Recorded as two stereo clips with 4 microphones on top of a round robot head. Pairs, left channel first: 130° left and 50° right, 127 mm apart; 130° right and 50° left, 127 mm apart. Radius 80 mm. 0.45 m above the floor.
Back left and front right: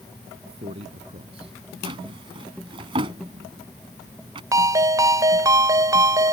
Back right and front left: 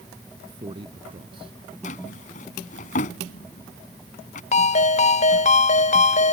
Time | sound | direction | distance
0.5 | a man speaking | 5° right | ?
1.8 | a drawer | 105° right | ?
4.5 | a ringtone | 110° right | ?